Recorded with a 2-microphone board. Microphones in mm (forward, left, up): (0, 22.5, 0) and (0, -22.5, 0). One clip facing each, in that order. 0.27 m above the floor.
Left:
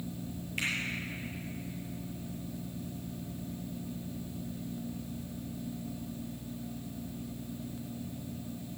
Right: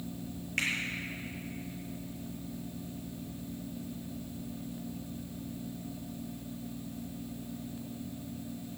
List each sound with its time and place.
0.6 s a finger snap: 65° right (ahead or behind), 6 m